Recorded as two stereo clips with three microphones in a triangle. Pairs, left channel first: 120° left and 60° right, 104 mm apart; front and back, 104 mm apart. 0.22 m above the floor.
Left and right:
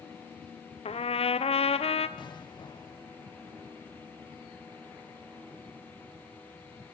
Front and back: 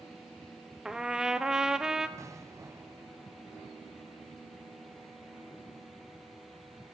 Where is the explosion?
130° left, 0.9 m.